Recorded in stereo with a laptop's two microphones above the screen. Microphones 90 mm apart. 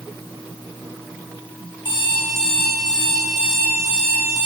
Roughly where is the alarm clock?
Left.